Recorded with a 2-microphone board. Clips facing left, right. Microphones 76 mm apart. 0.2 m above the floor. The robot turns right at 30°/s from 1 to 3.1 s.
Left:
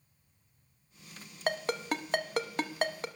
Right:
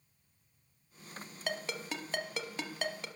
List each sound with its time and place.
1.5 s a ringtone: 45° left (ahead or behind), 0.7 m; by 3.1 s 40° left (ahead or behind), 0.7 m